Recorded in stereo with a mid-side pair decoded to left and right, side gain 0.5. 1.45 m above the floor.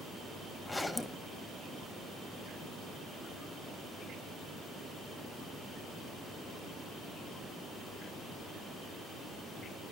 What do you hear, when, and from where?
0.7 s a zipper: 10° left, 1.3 m